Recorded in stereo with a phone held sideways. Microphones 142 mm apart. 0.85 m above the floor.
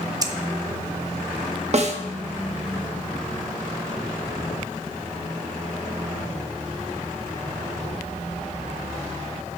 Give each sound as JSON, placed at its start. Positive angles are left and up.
{"t": 0.2, "sound": "scissors", "side_deg": -25, "distance_m": 0.6}
{"t": 1.7, "sound": "a snare drum", "side_deg": -50, "distance_m": 0.8}